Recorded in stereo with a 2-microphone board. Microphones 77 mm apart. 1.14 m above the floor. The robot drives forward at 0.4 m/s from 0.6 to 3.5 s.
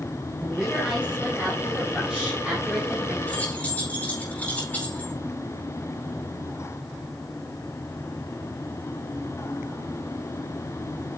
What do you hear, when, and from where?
0.4 s a woman speaking: 10° right (ahead or behind), 4 m; by 3.2 s 15° right (ahead or behind), 3 m
3.3 s keys jangling: 20° left (ahead or behind), 4.5 m